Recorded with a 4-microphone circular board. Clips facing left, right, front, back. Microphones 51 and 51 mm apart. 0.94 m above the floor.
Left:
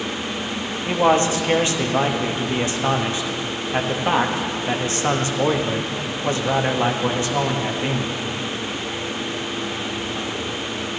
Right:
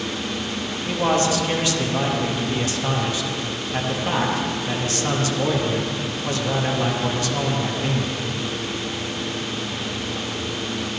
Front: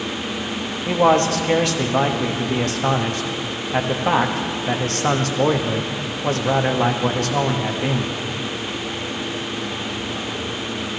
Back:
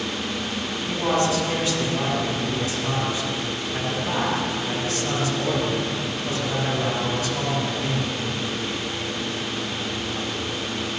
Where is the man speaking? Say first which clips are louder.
Left 3 dB, front 7 dB; 25° left, 1.2 m.